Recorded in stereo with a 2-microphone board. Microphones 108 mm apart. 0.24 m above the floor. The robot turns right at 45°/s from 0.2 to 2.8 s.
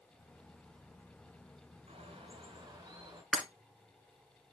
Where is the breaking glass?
Centre (ahead or behind), 1.6 m.